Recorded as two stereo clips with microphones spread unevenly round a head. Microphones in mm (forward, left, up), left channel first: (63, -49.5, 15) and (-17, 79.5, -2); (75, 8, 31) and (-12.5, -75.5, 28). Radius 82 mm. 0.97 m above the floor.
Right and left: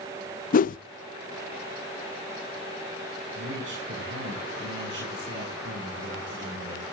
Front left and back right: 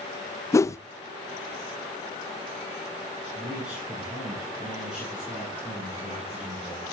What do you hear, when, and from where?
0.5 s a whoosh: 25° right, 0.6 m
3.4 s a man speaking: 140° left, 9 m